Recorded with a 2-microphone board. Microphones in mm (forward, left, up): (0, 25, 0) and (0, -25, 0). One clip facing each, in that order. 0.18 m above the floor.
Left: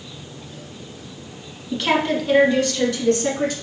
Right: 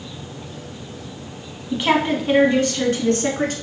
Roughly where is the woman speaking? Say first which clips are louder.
Right 1 dB; centre.